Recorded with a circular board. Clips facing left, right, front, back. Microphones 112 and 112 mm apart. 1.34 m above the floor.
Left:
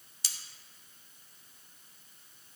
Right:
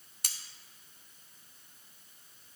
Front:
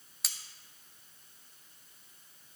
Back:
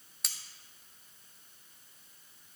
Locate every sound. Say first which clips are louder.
0.2 s cutlery clinking: right 1 dB, even; 90° right, 0.6 m